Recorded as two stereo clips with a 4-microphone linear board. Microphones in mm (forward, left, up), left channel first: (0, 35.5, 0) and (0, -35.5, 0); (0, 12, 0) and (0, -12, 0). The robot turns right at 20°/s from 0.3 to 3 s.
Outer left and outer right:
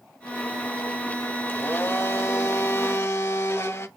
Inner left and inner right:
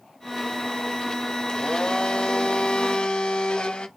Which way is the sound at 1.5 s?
60° left.